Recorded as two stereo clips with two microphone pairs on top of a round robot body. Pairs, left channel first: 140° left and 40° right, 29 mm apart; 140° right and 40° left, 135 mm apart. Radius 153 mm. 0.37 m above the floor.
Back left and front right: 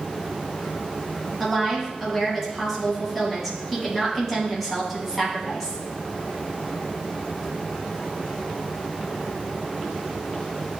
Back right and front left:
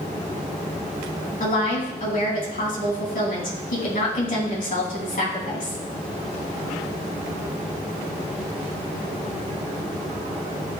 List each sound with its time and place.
1.4 s a woman speaking: 125° right, 4.5 m